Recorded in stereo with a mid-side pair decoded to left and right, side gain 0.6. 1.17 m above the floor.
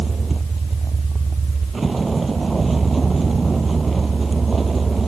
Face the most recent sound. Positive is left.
turn(degrees=-20)